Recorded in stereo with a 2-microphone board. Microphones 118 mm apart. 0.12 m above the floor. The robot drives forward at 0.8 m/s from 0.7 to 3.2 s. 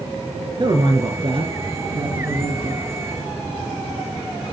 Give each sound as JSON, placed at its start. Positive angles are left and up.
{"t": 0.6, "sound": "a man speaking", "side_deg": -45, "distance_m": 2.5}